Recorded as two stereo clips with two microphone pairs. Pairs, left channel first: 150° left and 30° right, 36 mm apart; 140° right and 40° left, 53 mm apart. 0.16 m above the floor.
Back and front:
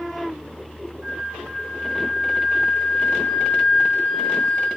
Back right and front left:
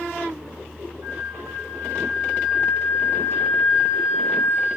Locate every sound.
1.0 s a flute: 35° left, 4.5 m